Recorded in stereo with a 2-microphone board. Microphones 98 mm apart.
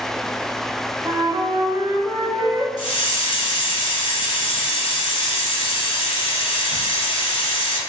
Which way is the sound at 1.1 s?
35° right (ahead or behind).